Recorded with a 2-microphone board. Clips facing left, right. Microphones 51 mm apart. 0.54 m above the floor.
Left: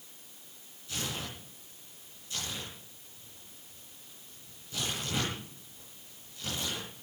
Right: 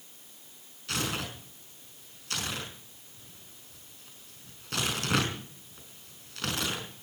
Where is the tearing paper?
70° right (ahead or behind), 5.5 m.